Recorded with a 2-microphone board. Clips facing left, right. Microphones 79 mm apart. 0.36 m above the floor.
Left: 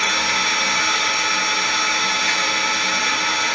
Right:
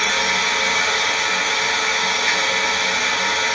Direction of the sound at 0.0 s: 55° right (ahead or behind).